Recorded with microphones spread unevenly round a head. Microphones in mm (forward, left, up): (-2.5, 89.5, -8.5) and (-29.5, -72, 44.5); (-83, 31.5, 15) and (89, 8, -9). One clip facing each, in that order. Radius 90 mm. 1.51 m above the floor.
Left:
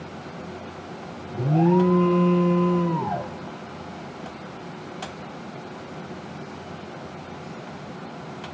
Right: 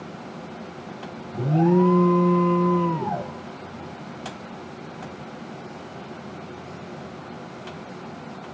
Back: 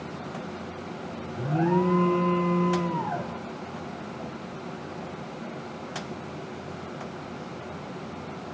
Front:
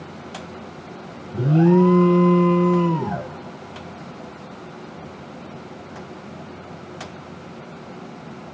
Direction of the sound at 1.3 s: 35° right.